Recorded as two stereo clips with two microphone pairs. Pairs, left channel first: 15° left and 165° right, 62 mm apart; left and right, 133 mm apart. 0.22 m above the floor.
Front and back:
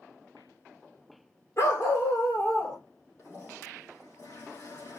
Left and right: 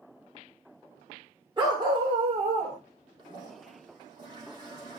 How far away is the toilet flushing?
About 3.5 m.